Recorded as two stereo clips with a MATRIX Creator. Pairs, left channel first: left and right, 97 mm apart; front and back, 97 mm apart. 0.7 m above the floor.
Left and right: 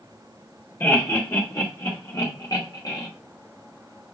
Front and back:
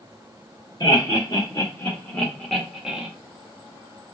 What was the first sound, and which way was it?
Laughter, 35° left.